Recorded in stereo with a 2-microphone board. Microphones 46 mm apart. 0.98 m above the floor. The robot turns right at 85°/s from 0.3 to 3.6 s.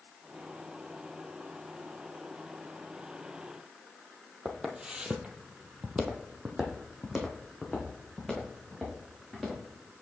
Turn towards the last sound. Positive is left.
turn(degrees=0)  # may be behind; listen again after turning